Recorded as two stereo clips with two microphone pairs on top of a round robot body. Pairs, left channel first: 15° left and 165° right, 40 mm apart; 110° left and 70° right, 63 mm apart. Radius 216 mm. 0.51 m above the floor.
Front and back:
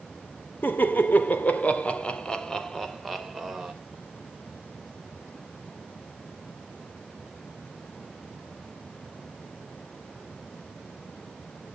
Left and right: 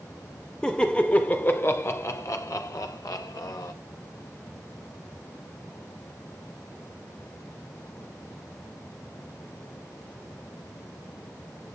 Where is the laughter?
30° left, 2.5 m; by 3.7 s 110° left, 3 m.